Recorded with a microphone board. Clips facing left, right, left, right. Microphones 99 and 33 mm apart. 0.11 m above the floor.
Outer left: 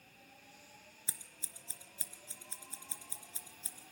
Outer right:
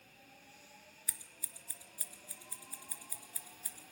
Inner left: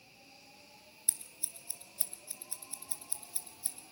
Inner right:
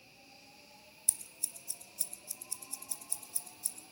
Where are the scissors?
25° left (ahead or behind), 1.5 m.